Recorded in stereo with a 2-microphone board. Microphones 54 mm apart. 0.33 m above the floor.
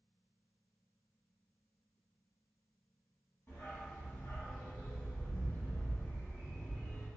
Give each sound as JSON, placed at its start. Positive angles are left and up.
{"t": 3.5, "sound": "a dog barking", "side_deg": 55, "distance_m": 1.0}